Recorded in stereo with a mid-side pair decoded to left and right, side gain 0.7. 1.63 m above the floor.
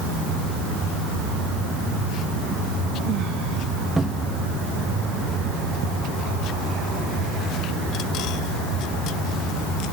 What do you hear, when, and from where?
4.0 s a cupboard door: 10° right